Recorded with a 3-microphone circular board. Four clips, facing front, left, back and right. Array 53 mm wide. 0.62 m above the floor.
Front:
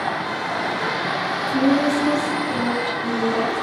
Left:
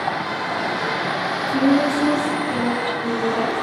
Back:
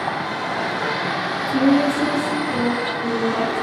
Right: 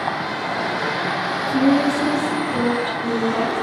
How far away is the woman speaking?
About 0.6 m.